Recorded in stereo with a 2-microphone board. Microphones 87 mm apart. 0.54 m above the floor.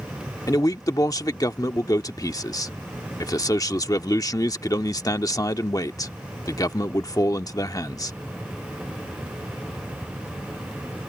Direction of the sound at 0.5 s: 45° left (ahead or behind).